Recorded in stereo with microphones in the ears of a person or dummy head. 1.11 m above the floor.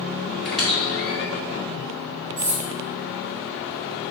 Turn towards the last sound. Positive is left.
turn(degrees=-75)  # may be behind; listen again after turning